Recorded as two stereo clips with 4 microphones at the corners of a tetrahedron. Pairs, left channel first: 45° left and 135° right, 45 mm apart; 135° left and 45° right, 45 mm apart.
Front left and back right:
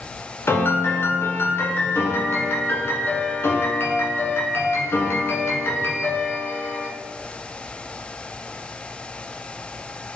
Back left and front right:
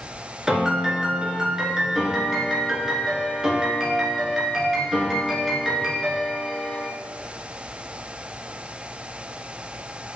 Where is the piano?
35° left, 1.0 m.